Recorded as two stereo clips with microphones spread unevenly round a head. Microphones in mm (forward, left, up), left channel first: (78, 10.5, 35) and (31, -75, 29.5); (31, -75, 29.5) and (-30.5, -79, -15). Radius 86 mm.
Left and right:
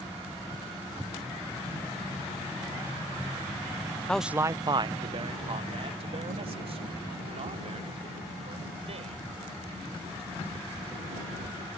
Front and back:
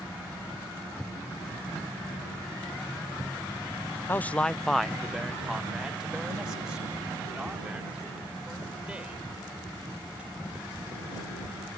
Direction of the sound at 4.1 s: 15° right.